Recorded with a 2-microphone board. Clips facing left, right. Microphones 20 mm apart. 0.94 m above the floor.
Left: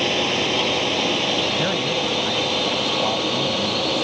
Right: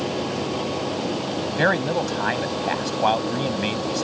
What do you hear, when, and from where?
0.0 s a drone: 50° left (ahead or behind)
1.6 s a man speaking: 75° right (ahead or behind)